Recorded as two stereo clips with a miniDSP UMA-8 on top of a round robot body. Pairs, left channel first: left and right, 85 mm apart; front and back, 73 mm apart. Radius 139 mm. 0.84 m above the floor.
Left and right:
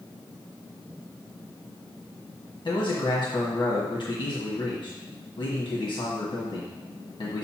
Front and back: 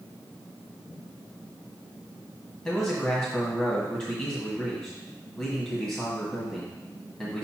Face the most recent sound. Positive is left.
turn(degrees=65)